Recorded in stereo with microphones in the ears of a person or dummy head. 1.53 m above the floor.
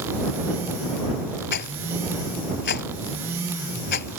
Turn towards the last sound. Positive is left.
turn(degrees=55)  # may be behind; listen again after turning